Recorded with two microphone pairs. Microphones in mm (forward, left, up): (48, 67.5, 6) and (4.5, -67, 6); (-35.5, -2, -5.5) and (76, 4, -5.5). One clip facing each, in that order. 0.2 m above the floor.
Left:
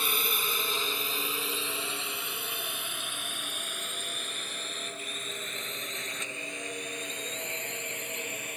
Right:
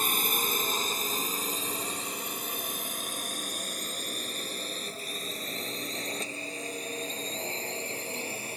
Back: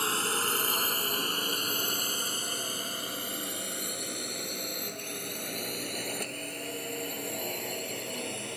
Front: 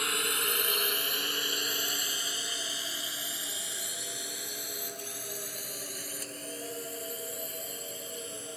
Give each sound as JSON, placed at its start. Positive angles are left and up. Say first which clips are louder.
{"t": 0.0, "sound": "a drone", "louder": "right 2 dB, back 3 dB", "azimuth_deg": -130}